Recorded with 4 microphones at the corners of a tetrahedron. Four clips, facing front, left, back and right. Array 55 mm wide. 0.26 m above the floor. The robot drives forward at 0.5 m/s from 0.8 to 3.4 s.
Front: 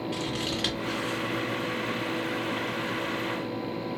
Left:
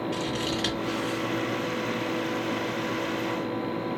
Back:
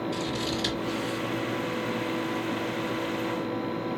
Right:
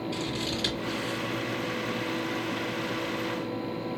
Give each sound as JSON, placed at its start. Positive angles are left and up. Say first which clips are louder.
{"t": 0.1, "sound": "scissors", "louder": "left 3 dB, back 1 dB", "azimuth_deg": 30, "distance_m": 1.6}